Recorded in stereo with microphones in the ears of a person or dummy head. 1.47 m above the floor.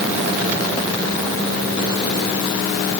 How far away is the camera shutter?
No camera shutter in this recording.